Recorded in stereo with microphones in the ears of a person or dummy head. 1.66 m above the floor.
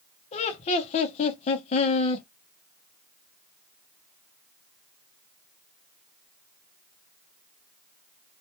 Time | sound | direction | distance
0.3 | laughter | 35° left (ahead or behind) | 0.6 m